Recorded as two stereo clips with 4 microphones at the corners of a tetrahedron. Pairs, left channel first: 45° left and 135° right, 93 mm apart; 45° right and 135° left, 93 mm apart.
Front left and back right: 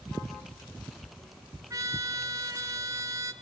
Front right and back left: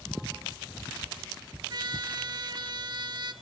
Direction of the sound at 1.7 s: 175° left.